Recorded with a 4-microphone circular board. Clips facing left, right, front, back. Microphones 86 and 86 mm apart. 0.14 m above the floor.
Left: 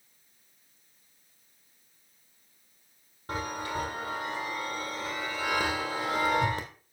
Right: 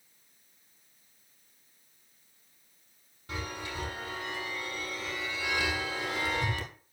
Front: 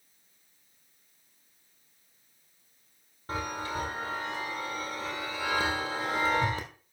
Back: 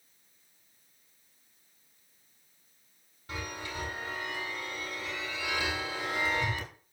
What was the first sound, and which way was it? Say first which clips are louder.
A chime: left 5 dB, front 6 dB; 45° left.